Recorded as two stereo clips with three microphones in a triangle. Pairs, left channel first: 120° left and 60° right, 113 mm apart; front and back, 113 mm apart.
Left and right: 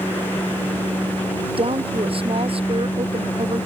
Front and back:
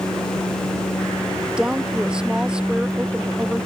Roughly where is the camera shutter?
No camera shutter in this recording.